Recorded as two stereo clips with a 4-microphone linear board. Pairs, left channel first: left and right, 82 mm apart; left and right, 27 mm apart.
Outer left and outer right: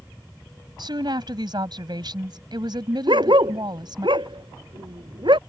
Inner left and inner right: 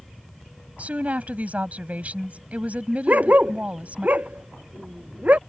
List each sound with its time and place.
0.8 s a woman speaking: 65° right (ahead or behind)
3.1 s a dog barking: 80° right